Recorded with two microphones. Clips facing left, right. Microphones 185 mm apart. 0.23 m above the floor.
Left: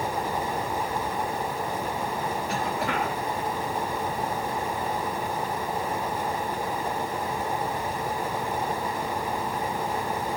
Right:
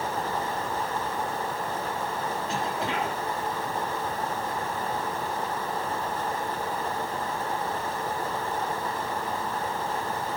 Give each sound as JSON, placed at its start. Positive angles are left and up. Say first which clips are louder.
{"t": 2.5, "sound": "a cough", "louder": "left 2 dB", "side_deg": -25, "distance_m": 3.0}